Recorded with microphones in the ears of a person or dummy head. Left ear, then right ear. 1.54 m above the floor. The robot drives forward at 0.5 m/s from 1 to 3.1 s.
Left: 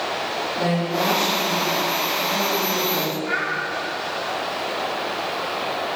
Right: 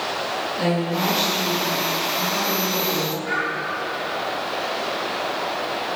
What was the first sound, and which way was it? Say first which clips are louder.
A woman speaking: left 1 dB; 20° right (ahead or behind).